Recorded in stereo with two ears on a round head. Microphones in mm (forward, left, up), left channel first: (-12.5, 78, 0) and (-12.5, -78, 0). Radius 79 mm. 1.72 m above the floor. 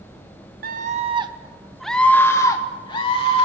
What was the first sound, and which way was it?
A scream, 50° right (ahead or behind).